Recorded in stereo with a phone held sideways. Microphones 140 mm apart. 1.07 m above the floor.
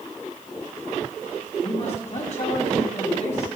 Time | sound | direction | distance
1.6 | a man speaking | 55° left (ahead or behind) | 7 m